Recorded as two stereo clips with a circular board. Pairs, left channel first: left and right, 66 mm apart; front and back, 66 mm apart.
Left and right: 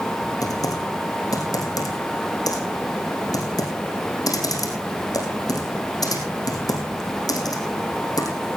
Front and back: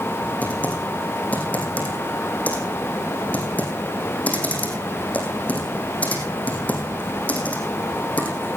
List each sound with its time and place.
0.4 s typing on a keyboard: 70° left, 4.5 m